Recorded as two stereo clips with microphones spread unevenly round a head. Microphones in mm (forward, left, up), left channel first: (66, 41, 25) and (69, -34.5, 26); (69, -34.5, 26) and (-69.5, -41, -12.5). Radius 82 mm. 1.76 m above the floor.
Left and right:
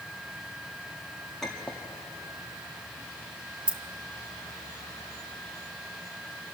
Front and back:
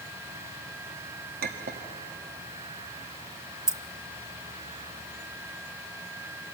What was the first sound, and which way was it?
A clink, straight behind.